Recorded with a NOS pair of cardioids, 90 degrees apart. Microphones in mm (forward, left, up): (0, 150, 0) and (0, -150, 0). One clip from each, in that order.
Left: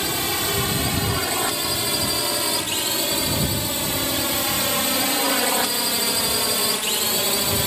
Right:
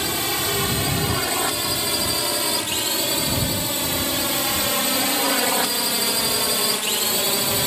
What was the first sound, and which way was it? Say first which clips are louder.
A drone: even; 10° right.